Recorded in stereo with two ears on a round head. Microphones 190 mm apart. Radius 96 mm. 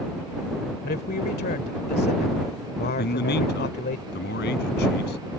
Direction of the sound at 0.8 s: 45° left (ahead or behind).